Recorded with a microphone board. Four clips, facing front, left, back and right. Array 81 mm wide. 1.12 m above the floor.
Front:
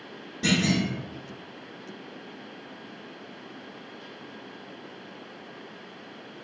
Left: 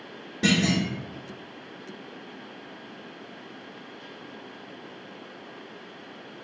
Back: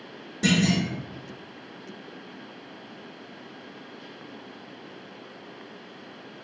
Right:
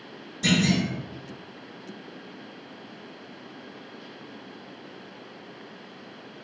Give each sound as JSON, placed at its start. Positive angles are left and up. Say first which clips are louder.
{"t": 0.4, "sound": "a clunk", "louder": "even, back 2 dB", "azimuth_deg": 100, "distance_m": 1.9}